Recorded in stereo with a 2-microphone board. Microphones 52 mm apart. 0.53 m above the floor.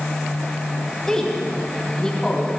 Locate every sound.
1.1 s a woman speaking: 10° left (ahead or behind), 4 m